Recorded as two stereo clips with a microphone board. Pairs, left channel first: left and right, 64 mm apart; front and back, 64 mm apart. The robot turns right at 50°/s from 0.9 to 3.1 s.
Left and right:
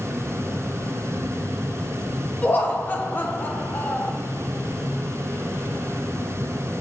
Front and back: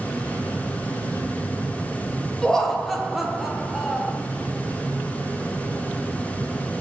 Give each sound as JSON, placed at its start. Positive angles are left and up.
{"t": 2.4, "sound": "laughter", "azimuth_deg": 65, "distance_m": 0.6}